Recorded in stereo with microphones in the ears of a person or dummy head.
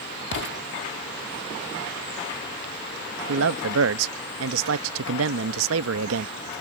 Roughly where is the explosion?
Left.